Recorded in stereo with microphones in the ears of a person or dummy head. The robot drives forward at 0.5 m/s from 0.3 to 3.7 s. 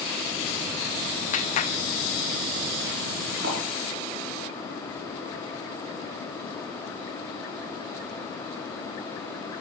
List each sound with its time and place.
1.3 s a clap: 40° left (ahead or behind), 1.5 m; by 1.7 s 35° left (ahead or behind), 1.7 m
3.4 s a thud: 60° right (ahead or behind), 8.5 m